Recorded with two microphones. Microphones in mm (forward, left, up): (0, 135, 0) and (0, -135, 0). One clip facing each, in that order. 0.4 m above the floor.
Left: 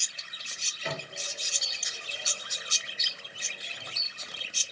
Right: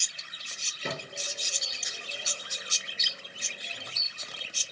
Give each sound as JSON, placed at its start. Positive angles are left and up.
{"t": 0.8, "sound": "a microwave", "side_deg": -55, "distance_m": 4.5}